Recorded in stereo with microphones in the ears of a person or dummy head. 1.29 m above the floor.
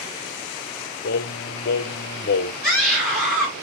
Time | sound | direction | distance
1.0 | singing | 65° left (ahead or behind) | 0.8 m
2.6 | a scream | 10° right (ahead or behind) | 3 m